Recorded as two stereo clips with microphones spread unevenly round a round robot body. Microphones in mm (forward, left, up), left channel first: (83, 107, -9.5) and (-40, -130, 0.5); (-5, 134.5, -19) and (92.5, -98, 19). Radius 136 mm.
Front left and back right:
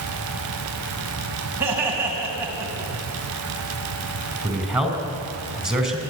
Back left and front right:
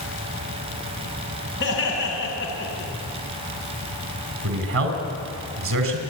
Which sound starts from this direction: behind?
Laughter, at 1.6 s.